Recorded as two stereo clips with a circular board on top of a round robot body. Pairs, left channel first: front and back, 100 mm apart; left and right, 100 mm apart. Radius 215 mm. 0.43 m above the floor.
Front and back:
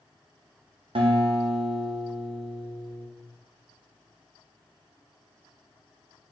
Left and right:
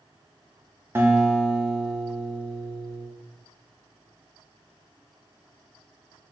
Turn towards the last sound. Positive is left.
turn(degrees=-155)